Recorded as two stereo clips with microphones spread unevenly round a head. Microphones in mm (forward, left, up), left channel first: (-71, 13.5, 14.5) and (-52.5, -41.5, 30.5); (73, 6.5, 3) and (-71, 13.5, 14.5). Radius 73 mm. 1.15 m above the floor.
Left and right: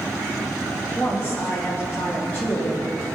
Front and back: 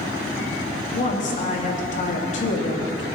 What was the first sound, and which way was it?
A woman speaking, 35° left.